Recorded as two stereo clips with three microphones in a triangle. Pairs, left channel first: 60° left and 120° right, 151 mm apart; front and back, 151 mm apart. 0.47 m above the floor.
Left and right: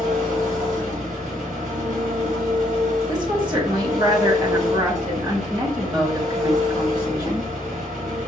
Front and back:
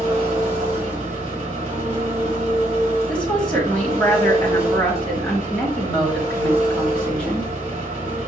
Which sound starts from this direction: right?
A woman speaking, at 3.1 s.